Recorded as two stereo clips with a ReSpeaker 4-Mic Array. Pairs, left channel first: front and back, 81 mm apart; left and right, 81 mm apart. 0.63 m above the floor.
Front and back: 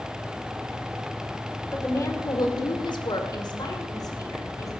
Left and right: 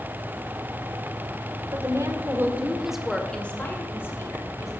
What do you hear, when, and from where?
1.7 s a woman speaking: 55° right, 1.9 m; by 4.7 s 40° left, 3 m